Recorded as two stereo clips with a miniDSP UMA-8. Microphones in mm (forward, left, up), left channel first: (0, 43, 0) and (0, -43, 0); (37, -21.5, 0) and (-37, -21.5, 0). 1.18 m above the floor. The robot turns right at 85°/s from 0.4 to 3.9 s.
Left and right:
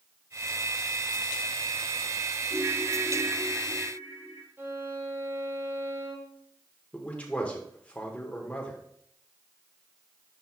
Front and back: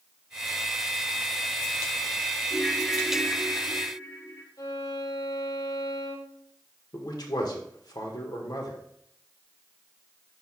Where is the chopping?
No chopping in this recording.